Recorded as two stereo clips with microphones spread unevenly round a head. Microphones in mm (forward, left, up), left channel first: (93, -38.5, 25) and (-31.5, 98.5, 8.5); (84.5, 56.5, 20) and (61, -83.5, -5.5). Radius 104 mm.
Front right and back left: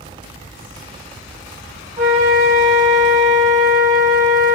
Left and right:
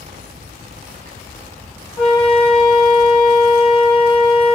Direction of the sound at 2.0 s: 170° right.